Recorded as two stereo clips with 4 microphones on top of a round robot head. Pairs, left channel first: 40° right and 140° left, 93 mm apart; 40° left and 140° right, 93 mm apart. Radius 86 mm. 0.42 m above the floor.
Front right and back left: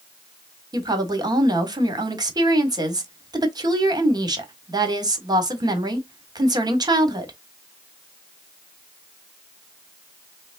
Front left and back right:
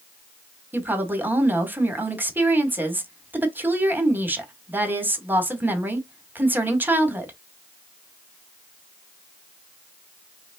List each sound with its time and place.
0.7 s a woman speaking: 155° left, 1.6 m